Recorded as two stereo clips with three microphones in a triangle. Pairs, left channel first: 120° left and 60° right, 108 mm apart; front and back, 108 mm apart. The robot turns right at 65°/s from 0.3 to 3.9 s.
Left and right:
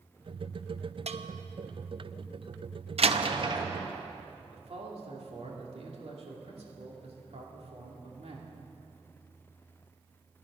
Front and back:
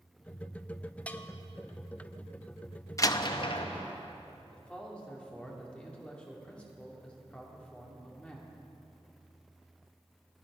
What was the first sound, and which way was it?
A bell, 75° right.